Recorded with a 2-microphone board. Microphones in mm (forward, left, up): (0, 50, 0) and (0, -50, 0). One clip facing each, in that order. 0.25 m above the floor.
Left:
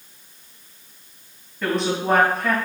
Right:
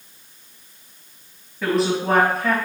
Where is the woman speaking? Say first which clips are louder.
Right 2 dB; 5° right (ahead or behind), 1.6 m.